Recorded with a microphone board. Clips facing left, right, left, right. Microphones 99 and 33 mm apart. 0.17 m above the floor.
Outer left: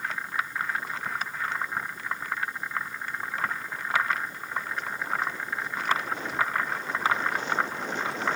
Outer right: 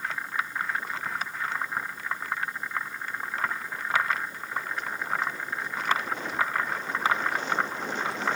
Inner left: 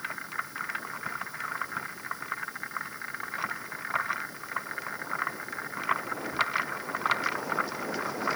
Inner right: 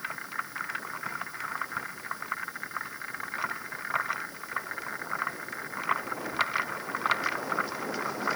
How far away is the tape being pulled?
I don't hear tape being pulled.